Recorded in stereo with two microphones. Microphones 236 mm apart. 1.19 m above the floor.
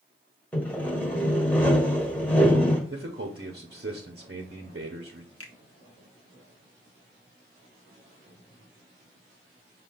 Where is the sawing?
5° left (ahead or behind), 1.4 m.